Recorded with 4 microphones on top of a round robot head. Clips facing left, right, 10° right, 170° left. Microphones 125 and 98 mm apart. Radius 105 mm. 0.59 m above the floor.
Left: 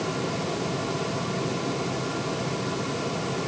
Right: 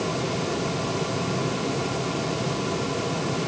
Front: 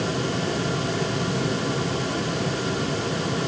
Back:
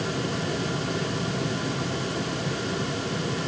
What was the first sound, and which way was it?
Only background noise.